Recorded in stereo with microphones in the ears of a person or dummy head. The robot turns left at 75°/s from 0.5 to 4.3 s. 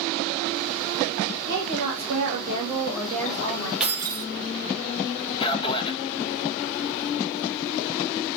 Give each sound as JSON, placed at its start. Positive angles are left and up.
{"t": 1.5, "sound": "a woman speaking", "azimuth_deg": -60, "distance_m": 1.8}
{"t": 3.8, "sound": "keys jangling", "azimuth_deg": -5, "distance_m": 0.6}
{"t": 5.4, "sound": "a man speaking", "side_deg": 25, "distance_m": 0.7}